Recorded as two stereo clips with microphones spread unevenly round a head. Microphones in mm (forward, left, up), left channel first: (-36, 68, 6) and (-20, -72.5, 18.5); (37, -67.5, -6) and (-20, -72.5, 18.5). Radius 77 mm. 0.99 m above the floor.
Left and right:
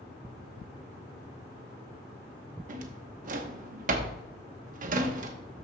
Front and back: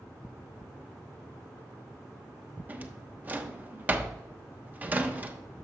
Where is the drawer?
115° right, 1.1 m.